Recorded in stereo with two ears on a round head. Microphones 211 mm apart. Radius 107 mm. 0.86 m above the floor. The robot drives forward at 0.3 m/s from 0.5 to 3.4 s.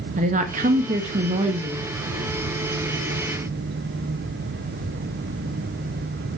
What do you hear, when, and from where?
0.2 s a woman speaking: 35° right (ahead or behind), 1.1 m; by 1.9 s 30° right (ahead or behind), 1.3 m